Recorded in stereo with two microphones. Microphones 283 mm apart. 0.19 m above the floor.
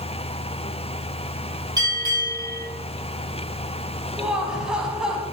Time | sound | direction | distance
1.8 | a bell | 15° right (ahead or behind) | 4 m
4.2 | laughter | 5° right (ahead or behind) | 1.1 m